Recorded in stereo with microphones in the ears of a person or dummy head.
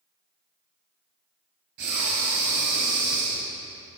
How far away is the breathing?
About 2 m.